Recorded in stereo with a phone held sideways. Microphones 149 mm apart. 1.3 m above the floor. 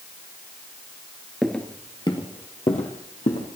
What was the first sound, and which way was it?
Footsteps, centre (ahead or behind).